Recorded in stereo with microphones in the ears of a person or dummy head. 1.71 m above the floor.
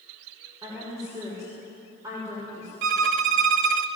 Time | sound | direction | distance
0.6 | a woman speaking | 15° right (ahead or behind) | 6.5 m
2.8 | a violin | 55° right (ahead or behind) | 1.0 m